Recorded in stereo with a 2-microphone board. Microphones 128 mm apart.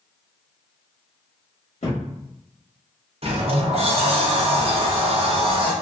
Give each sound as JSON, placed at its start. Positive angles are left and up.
{"t": 1.8, "sound": "a thud", "side_deg": 60, "distance_m": 1.3}
{"t": 3.2, "sound": "a sliding door", "side_deg": -50, "distance_m": 0.6}